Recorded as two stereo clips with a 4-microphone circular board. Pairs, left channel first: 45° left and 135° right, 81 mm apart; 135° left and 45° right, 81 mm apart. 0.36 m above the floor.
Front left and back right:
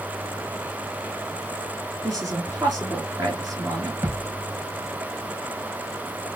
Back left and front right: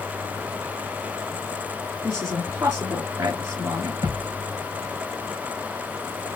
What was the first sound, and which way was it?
A woman speaking, 95° right.